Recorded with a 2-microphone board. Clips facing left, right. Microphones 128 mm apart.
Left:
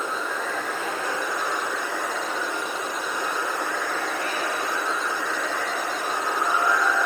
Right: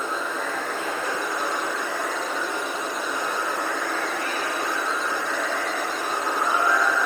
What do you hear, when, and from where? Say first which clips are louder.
0.0 s running water: right 1 dB; 55° right (ahead or behind), 4.5 m